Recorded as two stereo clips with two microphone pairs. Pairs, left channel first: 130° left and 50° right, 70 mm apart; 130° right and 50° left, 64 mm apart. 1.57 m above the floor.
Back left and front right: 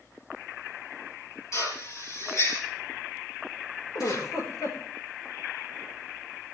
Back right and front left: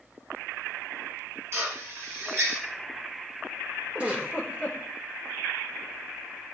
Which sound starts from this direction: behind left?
A giggle, at 4.0 s.